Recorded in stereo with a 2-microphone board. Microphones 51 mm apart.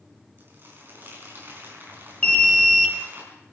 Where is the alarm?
25° left (ahead or behind), 1.2 m.